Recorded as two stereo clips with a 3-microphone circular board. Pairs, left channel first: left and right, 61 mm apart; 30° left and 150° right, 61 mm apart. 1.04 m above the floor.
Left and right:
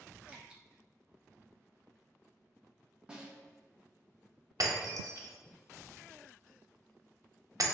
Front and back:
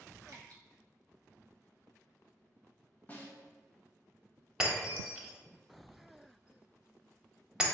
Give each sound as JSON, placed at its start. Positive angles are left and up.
{"t": 0.3, "sound": "dripping", "azimuth_deg": -160, "distance_m": 0.7}
{"t": 3.1, "sound": "a snare drum", "azimuth_deg": -20, "distance_m": 0.6}
{"t": 4.6, "sound": "breaking glass", "azimuth_deg": -75, "distance_m": 0.6}